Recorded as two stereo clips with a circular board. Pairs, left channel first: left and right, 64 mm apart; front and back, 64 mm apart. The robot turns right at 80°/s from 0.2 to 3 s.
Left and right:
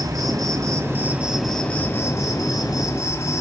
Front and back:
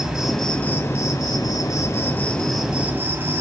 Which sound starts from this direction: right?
An insect, at 0.0 s.